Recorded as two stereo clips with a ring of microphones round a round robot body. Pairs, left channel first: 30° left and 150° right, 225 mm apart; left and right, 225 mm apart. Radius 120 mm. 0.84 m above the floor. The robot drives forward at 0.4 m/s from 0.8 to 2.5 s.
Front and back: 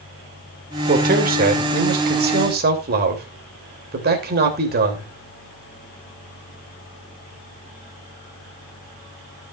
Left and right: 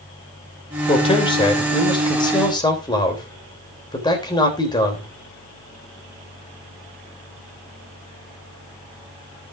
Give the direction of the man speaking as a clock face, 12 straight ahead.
7 o'clock.